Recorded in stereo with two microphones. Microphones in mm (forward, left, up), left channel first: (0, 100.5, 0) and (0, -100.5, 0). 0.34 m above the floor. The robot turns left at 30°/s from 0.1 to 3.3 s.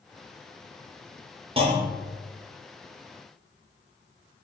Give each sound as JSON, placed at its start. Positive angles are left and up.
{"t": 1.6, "sound": "a clunk", "side_deg": -30, "distance_m": 0.7}